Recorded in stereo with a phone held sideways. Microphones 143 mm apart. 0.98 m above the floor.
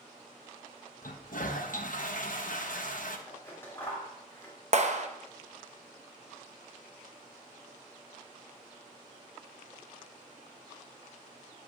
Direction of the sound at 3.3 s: 20° left (ahead or behind).